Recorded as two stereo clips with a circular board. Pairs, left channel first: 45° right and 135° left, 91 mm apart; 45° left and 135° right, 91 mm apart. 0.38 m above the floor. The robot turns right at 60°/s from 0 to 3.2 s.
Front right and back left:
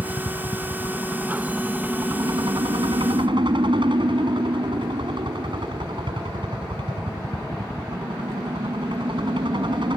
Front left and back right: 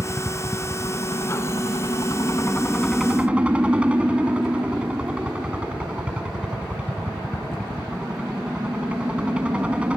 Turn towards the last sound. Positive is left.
turn(degrees=150)